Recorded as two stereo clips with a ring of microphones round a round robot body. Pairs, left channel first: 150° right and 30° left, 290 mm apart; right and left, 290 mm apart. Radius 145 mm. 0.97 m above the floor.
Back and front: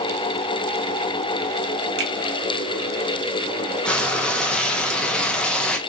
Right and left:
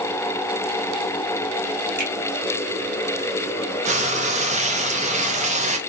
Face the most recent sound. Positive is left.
turn(degrees=125)